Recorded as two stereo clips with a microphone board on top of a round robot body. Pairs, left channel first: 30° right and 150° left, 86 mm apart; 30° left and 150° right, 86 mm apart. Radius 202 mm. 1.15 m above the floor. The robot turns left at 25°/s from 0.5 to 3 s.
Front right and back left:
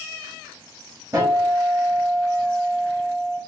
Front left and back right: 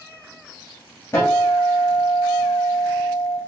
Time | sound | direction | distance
1.1 | a guitar | 95° left | 1.3 m